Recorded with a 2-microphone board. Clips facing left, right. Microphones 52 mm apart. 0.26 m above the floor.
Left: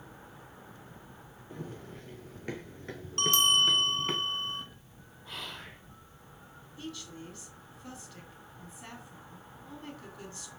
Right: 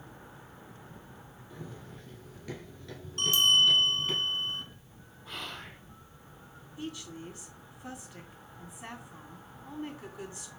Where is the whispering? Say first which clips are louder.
Right 1 dB; centre (ahead or behind), 4 m.